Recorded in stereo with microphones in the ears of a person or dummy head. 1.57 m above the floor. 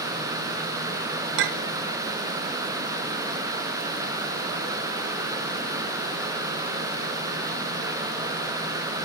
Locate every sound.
1.4 s a clink: 60° right (ahead or behind), 0.9 m